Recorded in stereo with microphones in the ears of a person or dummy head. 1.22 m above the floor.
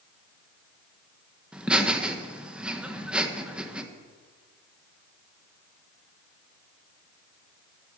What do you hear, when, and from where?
1.5 s laughter: centre (ahead or behind), 1.4 m